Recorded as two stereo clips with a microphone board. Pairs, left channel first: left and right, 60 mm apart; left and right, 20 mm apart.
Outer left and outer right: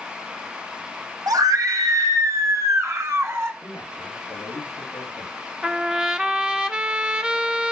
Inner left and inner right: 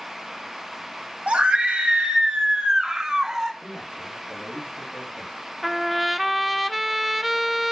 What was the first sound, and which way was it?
A scream, 75° right (ahead or behind).